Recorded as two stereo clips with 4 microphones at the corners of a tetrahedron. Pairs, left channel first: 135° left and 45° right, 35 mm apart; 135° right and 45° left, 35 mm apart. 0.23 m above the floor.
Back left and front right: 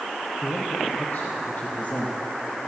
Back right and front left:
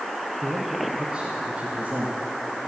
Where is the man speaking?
130° left, 3.5 m; by 2.2 s 75° left, 2.5 m.